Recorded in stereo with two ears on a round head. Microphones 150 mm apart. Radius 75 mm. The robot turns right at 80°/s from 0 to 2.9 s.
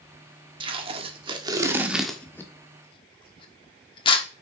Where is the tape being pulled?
30° right (ahead or behind), 1.2 m; by 4.2 s 30° left (ahead or behind), 1.2 m.